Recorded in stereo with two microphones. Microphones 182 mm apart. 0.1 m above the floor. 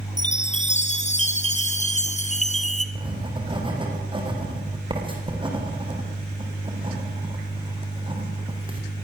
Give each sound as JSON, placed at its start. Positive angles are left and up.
{"t": 0.2, "sound": "a chime", "side_deg": 40, "distance_m": 1.7}
{"t": 3.0, "sound": "writing", "side_deg": -30, "distance_m": 5.5}